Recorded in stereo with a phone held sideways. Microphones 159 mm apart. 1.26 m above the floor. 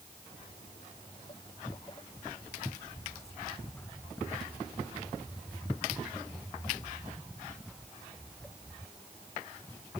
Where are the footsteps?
45° left (ahead or behind); by 8.9 s 5° right (ahead or behind).